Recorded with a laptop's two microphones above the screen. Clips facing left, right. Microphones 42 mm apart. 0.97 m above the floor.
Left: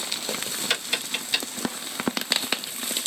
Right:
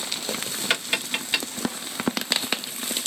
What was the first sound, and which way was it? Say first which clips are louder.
Tapping: right 3 dB; 25° right (ahead or behind).